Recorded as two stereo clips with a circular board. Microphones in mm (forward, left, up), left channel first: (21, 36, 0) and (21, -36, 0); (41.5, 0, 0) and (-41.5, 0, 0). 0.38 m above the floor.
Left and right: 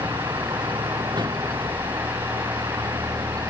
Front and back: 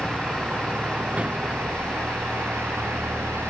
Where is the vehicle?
100° right; by 3.5 s 115° right.